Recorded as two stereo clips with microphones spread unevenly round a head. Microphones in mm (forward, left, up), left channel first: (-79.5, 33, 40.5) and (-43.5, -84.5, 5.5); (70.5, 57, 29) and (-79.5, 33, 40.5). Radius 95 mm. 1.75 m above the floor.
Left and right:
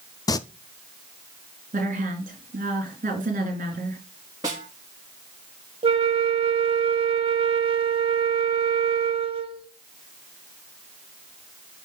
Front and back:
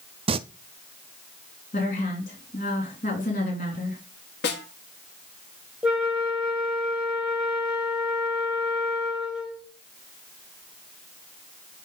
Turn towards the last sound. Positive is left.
turn(degrees=-95)